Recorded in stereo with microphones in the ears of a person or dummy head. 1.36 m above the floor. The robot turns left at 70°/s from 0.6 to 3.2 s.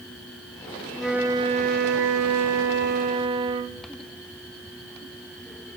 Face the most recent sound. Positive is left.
turn(degrees=-155)